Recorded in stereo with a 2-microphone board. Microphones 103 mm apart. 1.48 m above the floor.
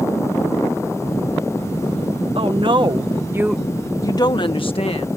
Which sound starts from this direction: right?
A woman speaking, at 2.4 s.